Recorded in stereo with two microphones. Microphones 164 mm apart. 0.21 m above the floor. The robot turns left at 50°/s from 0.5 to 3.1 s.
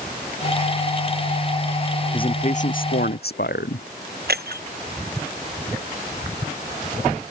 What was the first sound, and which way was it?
A man speaking, 150° left.